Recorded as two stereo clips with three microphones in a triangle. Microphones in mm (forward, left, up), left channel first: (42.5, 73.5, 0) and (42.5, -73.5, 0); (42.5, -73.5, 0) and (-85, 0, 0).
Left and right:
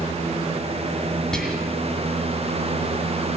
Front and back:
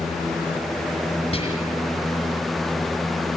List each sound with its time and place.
1.3 s whispering: 5° left, 2.5 m